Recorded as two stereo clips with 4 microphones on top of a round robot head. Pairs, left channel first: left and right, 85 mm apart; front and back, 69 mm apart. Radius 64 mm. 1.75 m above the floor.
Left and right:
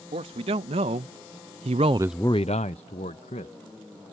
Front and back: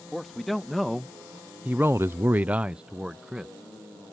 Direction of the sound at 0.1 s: 85° right.